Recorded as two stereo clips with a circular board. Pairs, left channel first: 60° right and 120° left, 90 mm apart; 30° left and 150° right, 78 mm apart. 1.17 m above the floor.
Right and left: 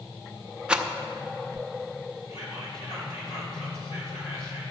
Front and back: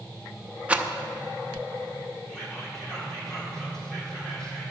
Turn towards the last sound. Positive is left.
turn(degrees=-50)